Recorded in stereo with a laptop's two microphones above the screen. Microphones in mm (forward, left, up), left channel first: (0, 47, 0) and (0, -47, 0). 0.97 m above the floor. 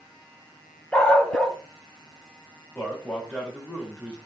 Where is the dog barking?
10° left (ahead or behind), 0.7 m.